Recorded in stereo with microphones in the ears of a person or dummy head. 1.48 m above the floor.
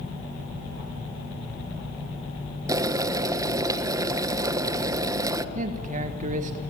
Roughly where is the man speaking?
Right.